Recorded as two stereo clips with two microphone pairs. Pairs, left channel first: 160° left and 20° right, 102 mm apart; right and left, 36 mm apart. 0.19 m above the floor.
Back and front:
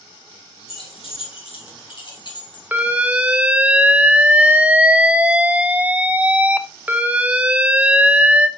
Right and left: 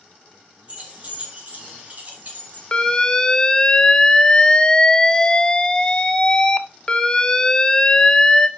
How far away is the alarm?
About 0.7 m.